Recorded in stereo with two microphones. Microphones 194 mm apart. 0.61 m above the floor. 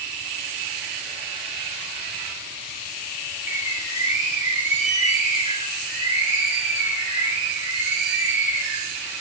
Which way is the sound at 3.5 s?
45° left (ahead or behind).